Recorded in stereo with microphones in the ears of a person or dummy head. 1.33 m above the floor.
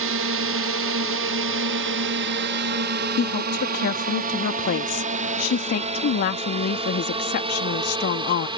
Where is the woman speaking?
55° left (ahead or behind).